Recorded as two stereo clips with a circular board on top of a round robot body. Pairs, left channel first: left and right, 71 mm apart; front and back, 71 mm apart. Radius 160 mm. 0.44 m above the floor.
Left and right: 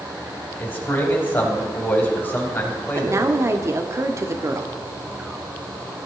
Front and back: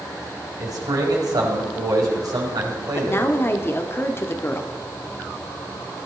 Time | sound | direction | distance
0.6 | a man speaking | 155° left | 4 m
3.0 | a woman speaking | 50° right | 1.5 m